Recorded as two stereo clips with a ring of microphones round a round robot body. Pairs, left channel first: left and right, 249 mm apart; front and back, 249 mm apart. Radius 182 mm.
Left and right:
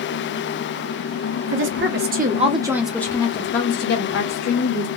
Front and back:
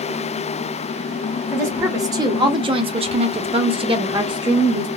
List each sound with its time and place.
1.5 s a woman speaking: 100° right, 0.9 m; by 4.9 s 105° left, 1.2 m